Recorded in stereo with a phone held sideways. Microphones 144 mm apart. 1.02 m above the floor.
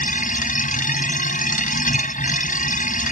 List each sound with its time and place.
0.0 s a machine running: 65° left (ahead or behind)